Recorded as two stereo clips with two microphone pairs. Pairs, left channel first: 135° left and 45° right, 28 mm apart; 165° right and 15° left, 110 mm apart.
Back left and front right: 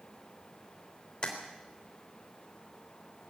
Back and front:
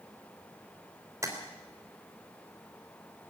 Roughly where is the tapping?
Left.